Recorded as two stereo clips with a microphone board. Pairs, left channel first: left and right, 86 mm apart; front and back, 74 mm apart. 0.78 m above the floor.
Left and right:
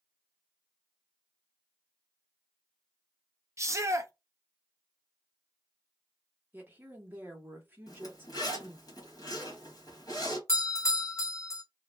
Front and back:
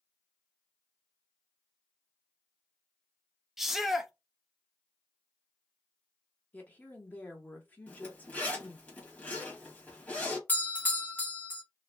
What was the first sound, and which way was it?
A shout, 100° right.